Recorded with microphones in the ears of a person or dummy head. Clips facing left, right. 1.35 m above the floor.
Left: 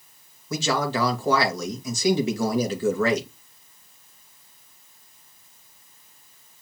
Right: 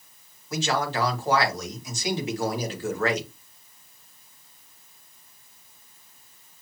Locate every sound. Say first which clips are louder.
0.5 s a man speaking: left 2 dB; 75° left (ahead or behind), 1.8 m